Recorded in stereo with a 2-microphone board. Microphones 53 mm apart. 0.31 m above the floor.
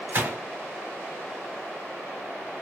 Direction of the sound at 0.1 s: 55° right (ahead or behind).